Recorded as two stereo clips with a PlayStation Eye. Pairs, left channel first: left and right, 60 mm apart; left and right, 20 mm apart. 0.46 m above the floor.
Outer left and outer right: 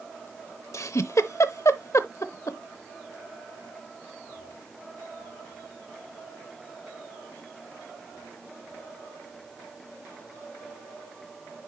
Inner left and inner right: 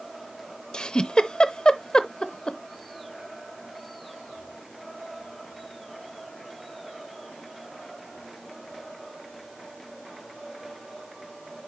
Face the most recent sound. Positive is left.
turn(degrees=60)  # may be behind; listen again after turning